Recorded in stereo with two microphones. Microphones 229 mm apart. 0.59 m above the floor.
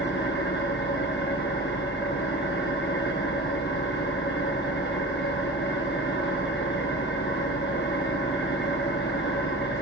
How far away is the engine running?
About 3.5 m.